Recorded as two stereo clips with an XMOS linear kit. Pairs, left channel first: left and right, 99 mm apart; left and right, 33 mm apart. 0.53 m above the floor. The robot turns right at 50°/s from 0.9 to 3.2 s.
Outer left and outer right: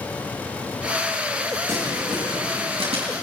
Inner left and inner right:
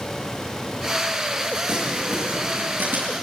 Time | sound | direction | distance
1.7 | crumpling | 25° right (ahead or behind) | 7.5 m